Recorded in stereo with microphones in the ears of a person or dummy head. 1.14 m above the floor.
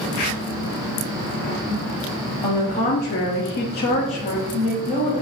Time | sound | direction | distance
2.4 | a woman speaking | 25° left (ahead or behind) | 0.7 m